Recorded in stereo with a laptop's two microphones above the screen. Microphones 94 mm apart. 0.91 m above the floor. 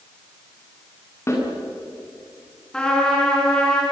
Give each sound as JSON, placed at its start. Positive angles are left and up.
{"t": 1.3, "sound": "a snare drum", "side_deg": 30, "distance_m": 9.0}
{"t": 2.7, "sound": "a trumpet", "side_deg": 10, "distance_m": 5.5}